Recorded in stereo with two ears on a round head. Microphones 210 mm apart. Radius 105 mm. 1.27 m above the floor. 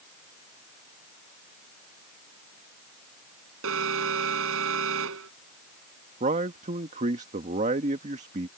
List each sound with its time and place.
3.6 s an alarm: 65° right (ahead or behind)
6.2 s a man speaking: 35° right (ahead or behind)